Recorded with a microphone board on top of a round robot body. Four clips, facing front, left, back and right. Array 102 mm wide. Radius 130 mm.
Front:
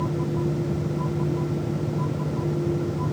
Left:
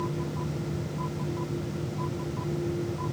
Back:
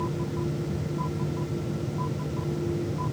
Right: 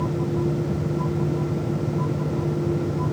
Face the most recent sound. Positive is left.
No sound to turn to.